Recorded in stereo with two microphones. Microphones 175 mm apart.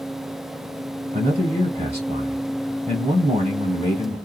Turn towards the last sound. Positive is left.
turn(degrees=-40)  # may be behind; listen again after turning